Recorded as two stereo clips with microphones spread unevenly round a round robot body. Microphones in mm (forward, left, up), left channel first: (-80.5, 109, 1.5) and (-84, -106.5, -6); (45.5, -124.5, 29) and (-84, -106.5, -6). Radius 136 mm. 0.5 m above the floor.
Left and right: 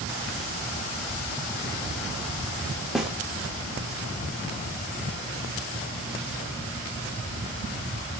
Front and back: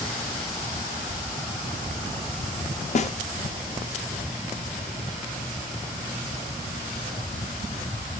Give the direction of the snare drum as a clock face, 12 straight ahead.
12 o'clock.